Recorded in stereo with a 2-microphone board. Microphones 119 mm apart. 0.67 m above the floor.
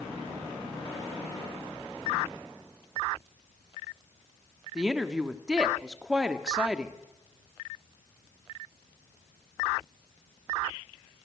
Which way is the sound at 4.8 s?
5° right (ahead or behind).